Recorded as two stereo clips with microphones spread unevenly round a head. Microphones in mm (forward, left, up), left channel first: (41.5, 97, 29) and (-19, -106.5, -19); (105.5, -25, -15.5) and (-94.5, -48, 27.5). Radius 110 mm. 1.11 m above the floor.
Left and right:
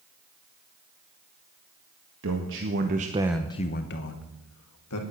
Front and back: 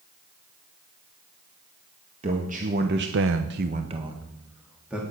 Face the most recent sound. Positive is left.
turn(degrees=95)